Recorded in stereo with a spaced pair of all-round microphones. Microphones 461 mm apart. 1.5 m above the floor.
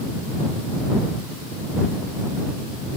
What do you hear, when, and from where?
Only background noise.